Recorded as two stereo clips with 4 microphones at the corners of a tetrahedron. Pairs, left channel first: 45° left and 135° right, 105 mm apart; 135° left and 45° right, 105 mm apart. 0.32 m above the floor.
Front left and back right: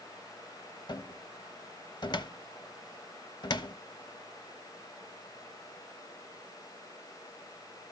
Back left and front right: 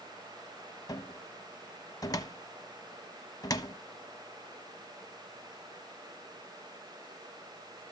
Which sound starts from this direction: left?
A cupboard door, at 0.9 s.